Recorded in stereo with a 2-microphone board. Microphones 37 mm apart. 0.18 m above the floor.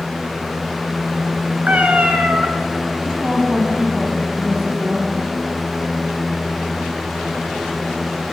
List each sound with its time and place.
1.7 s a cat meowing: 50° right (ahead or behind), 1.1 m
3.0 s a woman speaking: 45° right (ahead or behind), 1.4 m